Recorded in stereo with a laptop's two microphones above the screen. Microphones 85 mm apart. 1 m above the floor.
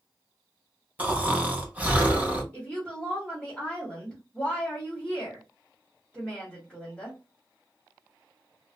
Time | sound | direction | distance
1.0 | snoring | 15° right (ahead or behind) | 1.0 m
2.5 | a woman speaking | 10° left (ahead or behind) | 1.1 m